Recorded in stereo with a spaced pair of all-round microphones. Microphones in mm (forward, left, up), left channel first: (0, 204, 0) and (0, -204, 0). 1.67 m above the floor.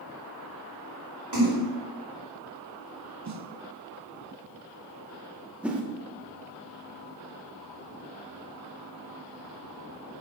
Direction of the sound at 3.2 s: 45° right (ahead or behind).